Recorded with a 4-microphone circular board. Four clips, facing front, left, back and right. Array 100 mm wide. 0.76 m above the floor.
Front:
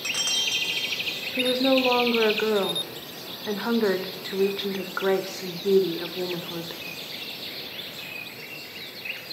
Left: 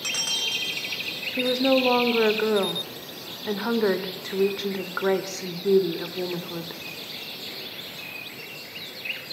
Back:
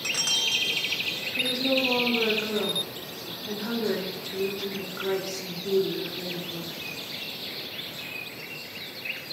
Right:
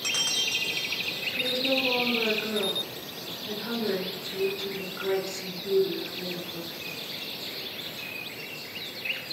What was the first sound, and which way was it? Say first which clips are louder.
A woman speaking: left 8 dB, front 6 dB; 55° left.